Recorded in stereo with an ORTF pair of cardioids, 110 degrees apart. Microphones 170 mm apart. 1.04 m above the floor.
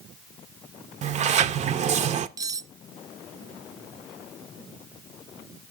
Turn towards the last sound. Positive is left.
turn(degrees=-20)